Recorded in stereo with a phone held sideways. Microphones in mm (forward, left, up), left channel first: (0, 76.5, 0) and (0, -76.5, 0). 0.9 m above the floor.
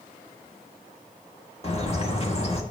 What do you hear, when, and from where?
1.6 s a bird: 40° left (ahead or behind), 1.3 m